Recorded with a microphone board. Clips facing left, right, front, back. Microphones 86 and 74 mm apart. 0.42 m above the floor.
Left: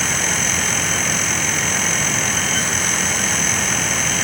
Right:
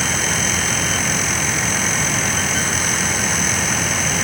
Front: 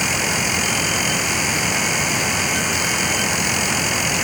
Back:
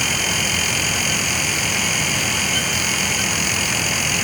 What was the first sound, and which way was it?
Only background noise.